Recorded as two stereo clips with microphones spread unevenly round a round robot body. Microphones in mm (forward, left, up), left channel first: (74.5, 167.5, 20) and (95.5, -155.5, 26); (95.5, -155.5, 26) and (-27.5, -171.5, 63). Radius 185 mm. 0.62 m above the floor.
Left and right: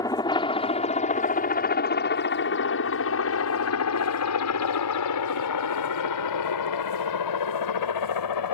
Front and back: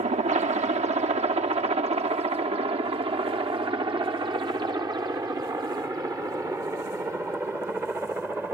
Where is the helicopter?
170° left; by 8.6 s 100° left.